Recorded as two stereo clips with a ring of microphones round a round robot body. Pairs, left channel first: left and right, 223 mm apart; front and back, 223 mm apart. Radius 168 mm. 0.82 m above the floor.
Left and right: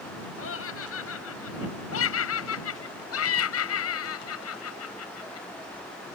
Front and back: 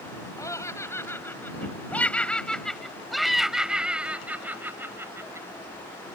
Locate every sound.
0.4 s laughter: 75° left; by 5.5 s 105° left